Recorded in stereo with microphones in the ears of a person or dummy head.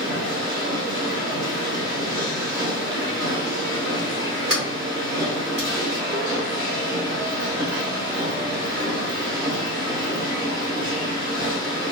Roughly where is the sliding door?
Right.